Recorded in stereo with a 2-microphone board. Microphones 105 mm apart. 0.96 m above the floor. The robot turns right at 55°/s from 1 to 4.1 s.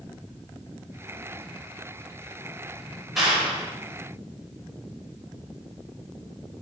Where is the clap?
175° right, 4 m; by 3.7 s 145° right, 4 m.